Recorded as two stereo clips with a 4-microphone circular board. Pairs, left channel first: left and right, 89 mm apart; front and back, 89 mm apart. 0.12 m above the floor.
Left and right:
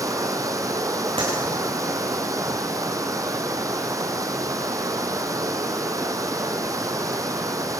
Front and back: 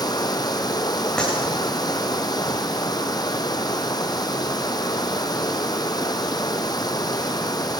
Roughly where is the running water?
Ahead right.